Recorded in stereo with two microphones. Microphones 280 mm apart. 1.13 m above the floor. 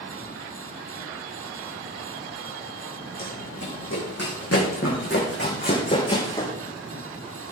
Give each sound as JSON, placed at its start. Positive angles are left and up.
{"t": 3.2, "sound": "running footsteps", "side_deg": 75, "distance_m": 5.0}